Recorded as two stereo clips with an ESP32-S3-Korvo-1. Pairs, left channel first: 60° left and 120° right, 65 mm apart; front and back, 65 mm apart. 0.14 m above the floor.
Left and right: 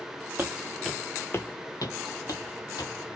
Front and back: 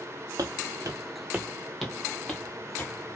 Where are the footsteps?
175° left, 0.7 m; by 2.9 s 65° left, 1.3 m.